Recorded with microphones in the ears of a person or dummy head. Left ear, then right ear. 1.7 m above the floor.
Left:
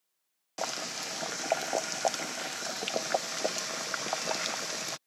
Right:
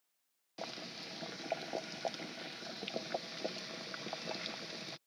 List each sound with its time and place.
0.6 s boiling: 45° left (ahead or behind)